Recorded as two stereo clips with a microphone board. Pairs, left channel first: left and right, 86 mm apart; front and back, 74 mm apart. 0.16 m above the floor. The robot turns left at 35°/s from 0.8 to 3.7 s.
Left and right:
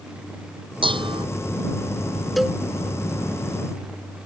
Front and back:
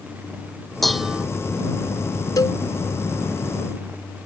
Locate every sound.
0.8 s dishes clattering: 85° right; by 1.3 s 105° right
2.4 s a cowbell: straight ahead; by 2.6 s 10° right